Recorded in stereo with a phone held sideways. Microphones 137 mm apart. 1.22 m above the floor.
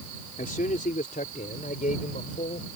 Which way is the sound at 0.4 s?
80° left.